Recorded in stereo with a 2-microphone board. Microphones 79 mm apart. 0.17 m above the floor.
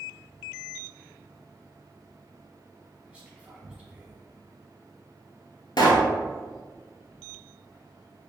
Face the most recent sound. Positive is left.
turn(degrees=65)  # may be behind; listen again after turning